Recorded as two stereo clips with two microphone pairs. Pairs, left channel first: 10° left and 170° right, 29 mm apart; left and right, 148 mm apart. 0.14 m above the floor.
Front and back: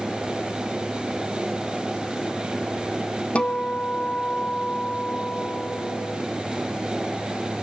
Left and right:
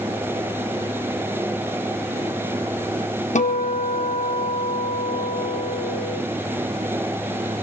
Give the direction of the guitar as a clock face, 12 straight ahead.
10 o'clock.